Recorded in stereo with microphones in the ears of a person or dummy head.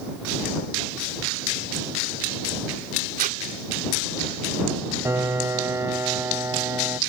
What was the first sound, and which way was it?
Tape being pulled, 50° right (ahead or behind).